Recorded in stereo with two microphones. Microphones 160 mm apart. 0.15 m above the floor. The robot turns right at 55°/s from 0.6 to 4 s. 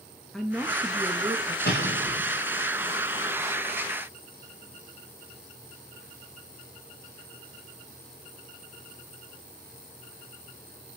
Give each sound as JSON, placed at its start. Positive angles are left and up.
{"t": 0.3, "sound": "a woman speaking", "azimuth_deg": 180, "distance_m": 2.5}
{"t": 1.6, "sound": "an explosion", "azimuth_deg": 100, "distance_m": 8.5}